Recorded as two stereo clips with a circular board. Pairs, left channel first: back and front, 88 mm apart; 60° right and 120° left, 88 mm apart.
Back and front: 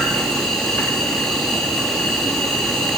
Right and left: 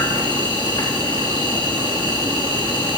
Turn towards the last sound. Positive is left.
turn(degrees=-95)